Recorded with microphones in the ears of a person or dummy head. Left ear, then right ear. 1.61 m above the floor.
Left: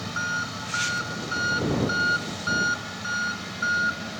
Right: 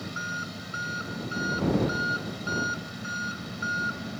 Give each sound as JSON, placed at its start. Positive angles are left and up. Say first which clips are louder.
{"t": 0.0, "sound": "an engine running", "louder": "left 5 dB", "side_deg": 20}